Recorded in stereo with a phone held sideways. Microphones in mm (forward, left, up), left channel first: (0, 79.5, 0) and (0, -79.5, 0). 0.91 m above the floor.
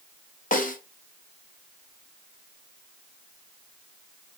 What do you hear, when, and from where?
0.5 s a snare drum: 50° left (ahead or behind), 0.7 m